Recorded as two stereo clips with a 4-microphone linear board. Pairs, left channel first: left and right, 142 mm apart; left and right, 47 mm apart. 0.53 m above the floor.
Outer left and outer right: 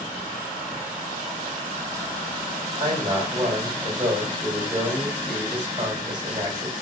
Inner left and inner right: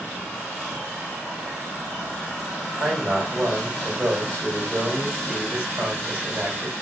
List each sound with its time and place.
2.8 s a man speaking: 30° right (ahead or behind), 2 m